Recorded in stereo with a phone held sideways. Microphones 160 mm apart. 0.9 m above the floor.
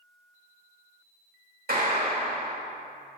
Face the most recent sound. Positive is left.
turn(degrees=-65)  # may be behind; listen again after turning